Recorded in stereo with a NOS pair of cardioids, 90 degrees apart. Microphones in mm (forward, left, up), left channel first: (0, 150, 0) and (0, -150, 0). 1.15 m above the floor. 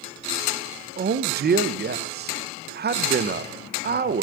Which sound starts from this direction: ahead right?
A man speaking, at 1.0 s.